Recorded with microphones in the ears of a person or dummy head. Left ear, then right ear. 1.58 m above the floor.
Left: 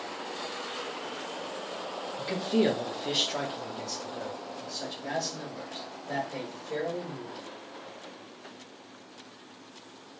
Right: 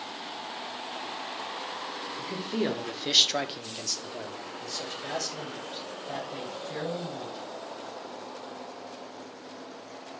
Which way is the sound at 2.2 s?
20° left (ahead or behind).